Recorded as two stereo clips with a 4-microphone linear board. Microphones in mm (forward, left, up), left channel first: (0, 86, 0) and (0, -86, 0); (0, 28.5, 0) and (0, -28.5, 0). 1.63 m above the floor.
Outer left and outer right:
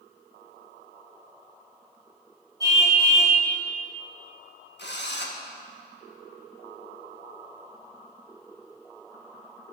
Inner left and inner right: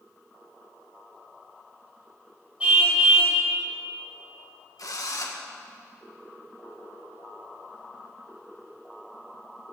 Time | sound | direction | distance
2.6 | a car horn | 20° right (ahead or behind) | 6 m
4.8 | a drill | 85° left | 1.8 m